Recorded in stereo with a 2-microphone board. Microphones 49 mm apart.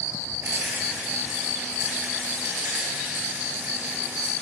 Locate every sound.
0.4 s a rattle: 45° right (ahead or behind), 7 m